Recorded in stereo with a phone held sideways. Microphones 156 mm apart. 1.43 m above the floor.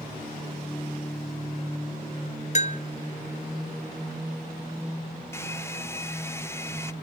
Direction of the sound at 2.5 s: 45° left (ahead or behind).